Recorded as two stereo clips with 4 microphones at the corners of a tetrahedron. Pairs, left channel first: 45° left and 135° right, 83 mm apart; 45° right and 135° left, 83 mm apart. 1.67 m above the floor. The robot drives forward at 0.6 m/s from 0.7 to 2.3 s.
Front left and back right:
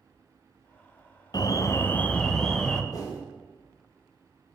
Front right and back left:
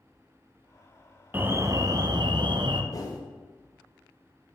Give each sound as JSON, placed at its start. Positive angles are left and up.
{"t": 1.3, "sound": "an alarm", "azimuth_deg": 70, "distance_m": 0.7}
{"t": 2.9, "sound": "a whoosh", "azimuth_deg": 0, "distance_m": 1.6}